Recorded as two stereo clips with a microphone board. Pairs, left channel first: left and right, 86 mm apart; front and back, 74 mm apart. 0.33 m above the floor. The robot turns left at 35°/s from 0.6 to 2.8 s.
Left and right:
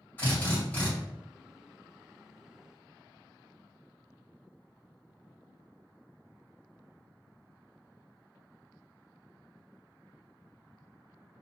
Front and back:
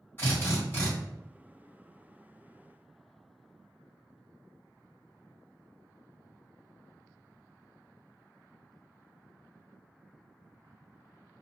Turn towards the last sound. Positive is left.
turn(degrees=-35)